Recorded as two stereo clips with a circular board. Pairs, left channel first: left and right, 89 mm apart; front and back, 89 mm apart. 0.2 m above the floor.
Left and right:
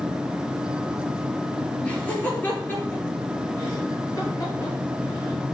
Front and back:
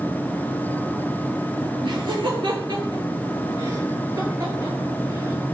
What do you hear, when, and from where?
1.8 s laughter: 165° left, 4.5 m; by 5.4 s 130° left, 5 m